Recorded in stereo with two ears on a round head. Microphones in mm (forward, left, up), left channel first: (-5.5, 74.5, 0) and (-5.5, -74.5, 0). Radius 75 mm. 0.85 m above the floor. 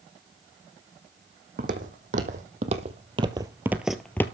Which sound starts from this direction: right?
Footsteps, at 1.6 s.